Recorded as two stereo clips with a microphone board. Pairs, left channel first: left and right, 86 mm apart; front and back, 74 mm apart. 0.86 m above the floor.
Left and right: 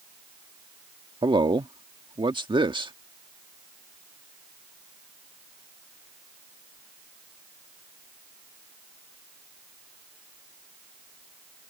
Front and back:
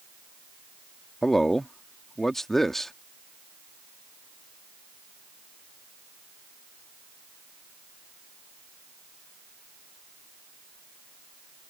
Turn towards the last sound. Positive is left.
turn(degrees=-85)